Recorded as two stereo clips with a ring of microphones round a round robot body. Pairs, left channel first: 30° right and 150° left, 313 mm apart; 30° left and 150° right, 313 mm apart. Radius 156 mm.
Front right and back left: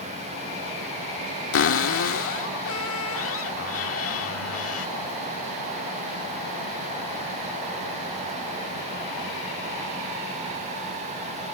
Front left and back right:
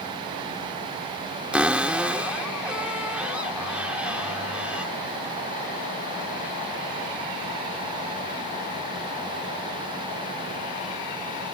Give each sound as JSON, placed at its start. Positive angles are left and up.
{"t": 1.5, "sound": "a cupboard door", "azimuth_deg": -65}